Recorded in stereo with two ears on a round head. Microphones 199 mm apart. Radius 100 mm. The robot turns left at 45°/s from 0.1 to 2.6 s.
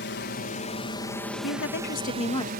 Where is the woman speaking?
65° left; by 2.5 s 15° left.